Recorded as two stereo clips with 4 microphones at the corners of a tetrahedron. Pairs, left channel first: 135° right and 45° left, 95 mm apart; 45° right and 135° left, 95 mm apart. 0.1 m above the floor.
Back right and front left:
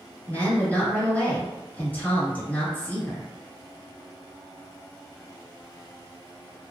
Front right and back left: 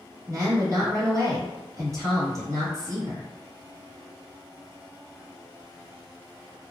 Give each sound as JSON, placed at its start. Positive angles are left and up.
{"t": 0.3, "sound": "a woman speaking", "azimuth_deg": 165, "distance_m": 1.8}